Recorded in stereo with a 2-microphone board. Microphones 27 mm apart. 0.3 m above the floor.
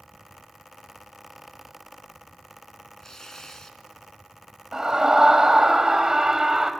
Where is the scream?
20° right (ahead or behind), 1.7 m.